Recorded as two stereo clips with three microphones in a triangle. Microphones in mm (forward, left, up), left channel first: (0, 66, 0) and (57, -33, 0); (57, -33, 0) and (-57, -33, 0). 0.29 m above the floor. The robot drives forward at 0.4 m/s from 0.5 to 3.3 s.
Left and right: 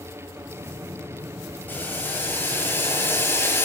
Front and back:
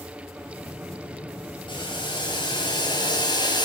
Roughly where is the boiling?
Ahead left.